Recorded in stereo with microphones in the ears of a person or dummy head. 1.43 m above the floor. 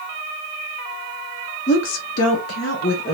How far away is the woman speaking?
About 1.0 m.